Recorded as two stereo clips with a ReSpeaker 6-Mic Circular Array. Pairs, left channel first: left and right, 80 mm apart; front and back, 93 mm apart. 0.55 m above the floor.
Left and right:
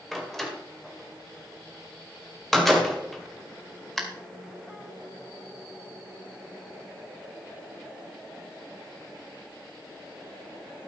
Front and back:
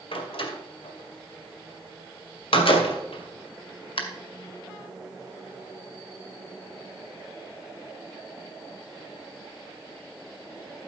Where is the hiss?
I don't hear a hiss.